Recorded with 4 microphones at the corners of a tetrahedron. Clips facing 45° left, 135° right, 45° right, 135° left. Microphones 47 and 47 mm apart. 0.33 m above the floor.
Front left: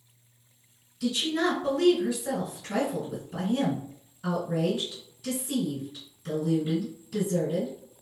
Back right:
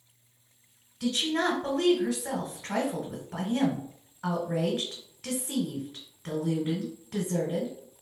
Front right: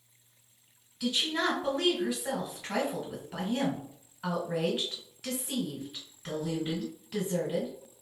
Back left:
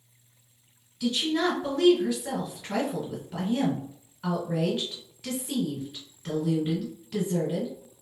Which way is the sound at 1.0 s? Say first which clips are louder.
Front left 1 dB, back left 4 dB; 125° right.